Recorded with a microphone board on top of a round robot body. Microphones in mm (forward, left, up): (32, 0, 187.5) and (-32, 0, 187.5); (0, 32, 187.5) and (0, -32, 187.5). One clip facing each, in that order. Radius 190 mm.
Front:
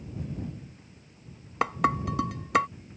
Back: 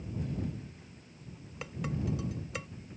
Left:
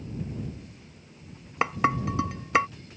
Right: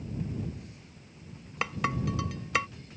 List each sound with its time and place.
1.6 s dishes clattering: 30° left